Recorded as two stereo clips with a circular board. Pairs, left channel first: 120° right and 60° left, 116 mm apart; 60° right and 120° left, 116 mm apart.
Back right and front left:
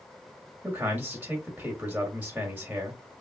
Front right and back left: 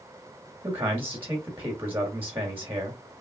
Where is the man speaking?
105° left, 1.2 m.